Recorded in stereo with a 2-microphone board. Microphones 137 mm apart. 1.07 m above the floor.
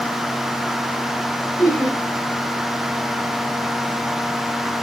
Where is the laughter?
20° left (ahead or behind), 2 m.